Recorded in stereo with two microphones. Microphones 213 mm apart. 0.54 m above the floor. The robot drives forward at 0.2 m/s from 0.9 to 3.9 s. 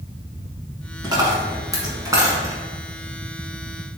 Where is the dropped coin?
20° right (ahead or behind), 1.1 m; by 2.5 s 15° right (ahead or behind), 1.4 m.